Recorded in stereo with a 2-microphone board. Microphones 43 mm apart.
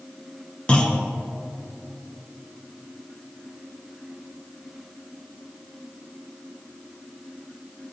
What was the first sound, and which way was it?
A clunk, 25° left (ahead or behind).